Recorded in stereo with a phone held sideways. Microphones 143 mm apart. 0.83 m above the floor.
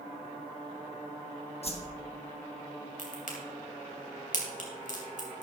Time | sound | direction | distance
1.6 | a whoosh | 45° left (ahead or behind) | 1.3 m
3.0 | a crack | 65° left (ahead or behind) | 3 m